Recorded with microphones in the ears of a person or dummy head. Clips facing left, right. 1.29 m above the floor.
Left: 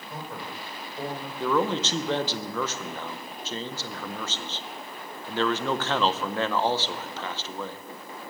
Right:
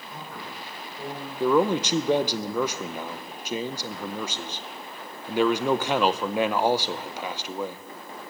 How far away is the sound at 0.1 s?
About 4.5 m.